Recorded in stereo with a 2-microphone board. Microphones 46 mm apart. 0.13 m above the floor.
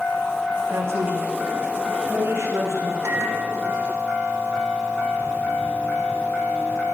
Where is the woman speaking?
75° right (ahead or behind), 10 m; by 2.9 s 65° right (ahead or behind), 11.5 m.